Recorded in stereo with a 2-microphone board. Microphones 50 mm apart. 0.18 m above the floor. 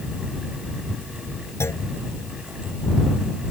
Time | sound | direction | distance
1.6 | a clunk | 65° left (ahead or behind) | ?